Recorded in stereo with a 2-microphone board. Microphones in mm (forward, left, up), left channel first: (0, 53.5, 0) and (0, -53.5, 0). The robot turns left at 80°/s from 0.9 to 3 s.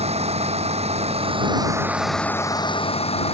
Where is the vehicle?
85° right; by 3.4 s 110° left.